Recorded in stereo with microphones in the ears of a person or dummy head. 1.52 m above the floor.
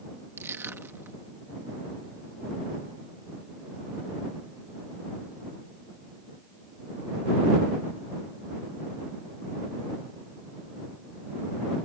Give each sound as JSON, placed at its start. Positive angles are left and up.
{"t": 0.4, "sound": "crushing", "side_deg": -15}